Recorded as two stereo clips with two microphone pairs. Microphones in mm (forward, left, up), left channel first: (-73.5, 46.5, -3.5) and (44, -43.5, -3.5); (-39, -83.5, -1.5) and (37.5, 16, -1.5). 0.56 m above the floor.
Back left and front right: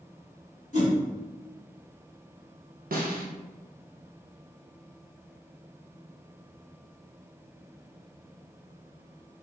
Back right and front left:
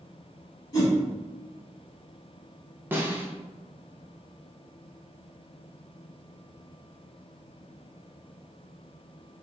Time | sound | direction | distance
0.7 | a whoosh | straight behind | 1.0 m
2.9 | a snare drum | 25° right | 0.5 m